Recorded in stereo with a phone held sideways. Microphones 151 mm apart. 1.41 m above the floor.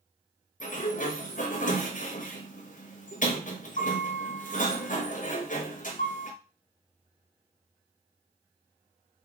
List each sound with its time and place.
0.6 s a sliding door: 60° left (ahead or behind), 0.5 m